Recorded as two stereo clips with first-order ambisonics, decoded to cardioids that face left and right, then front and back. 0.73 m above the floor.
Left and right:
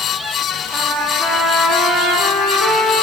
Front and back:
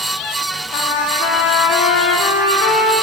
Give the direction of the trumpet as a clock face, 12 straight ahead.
12 o'clock.